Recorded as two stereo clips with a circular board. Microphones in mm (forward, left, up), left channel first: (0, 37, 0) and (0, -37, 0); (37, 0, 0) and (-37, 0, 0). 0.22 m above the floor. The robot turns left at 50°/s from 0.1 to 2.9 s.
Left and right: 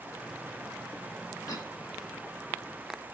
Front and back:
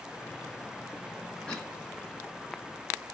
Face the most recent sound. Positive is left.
turn(degrees=10)